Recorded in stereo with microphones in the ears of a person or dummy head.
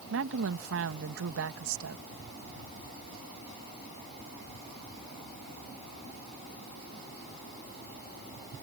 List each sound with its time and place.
0.1 s a woman speaking: 75° right (ahead or behind)